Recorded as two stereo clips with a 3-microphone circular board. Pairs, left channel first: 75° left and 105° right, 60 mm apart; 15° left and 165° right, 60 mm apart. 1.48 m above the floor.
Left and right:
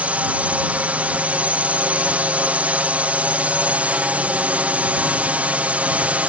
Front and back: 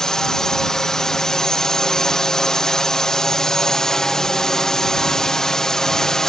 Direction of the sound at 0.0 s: 60° right.